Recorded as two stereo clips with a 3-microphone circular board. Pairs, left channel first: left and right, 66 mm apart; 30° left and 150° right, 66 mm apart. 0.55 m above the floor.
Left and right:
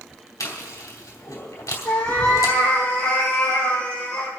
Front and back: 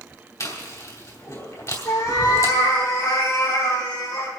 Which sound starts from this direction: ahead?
A cat meowing, at 1.9 s.